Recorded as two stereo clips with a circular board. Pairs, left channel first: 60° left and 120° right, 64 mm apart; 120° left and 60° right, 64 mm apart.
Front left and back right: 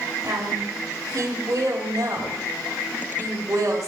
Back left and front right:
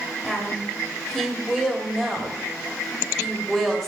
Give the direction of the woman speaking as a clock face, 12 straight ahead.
5 o'clock.